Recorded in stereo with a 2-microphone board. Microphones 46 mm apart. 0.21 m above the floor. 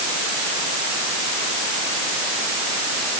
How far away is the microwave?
I don't hear a microwave.